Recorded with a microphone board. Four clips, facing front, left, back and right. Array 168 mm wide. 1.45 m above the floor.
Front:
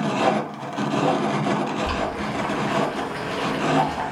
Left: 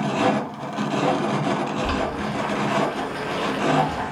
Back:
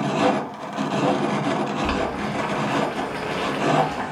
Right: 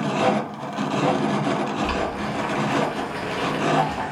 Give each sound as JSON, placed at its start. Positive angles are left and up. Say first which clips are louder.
{"t": 1.8, "sound": "boiling", "louder": "even, back 1 dB", "azimuth_deg": 170, "distance_m": 2.0}